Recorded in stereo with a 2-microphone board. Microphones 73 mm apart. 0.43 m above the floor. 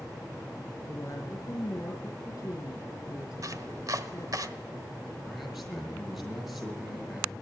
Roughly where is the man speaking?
Centre.